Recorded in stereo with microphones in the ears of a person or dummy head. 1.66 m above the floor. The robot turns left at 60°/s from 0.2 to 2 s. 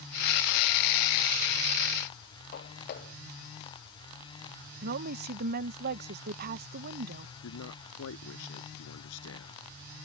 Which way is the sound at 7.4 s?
80° left.